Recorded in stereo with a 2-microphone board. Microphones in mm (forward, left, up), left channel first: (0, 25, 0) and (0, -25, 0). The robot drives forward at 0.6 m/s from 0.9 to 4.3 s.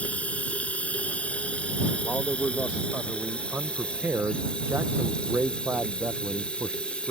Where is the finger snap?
I don't hear a finger snap.